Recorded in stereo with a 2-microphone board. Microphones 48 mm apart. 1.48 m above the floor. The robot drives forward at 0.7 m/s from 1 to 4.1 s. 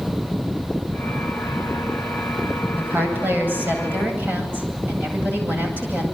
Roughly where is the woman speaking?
Right.